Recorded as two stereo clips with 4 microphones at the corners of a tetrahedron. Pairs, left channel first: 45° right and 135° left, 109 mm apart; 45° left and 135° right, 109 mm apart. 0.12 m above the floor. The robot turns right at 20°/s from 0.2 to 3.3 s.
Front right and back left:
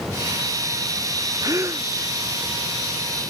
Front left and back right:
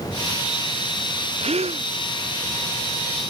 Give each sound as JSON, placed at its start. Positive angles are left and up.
{"t": 1.4, "sound": "a gasp", "azimuth_deg": -165}